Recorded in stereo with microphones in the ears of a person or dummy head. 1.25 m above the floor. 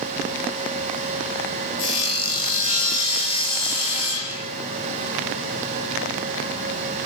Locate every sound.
1.8 s sawing: 40° left (ahead or behind), 4.5 m